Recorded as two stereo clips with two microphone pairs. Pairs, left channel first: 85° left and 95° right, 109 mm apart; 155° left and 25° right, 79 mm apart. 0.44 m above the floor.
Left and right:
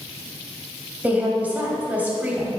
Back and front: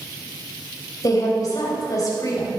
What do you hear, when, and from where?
1.0 s a woman speaking: 170° right, 2.5 m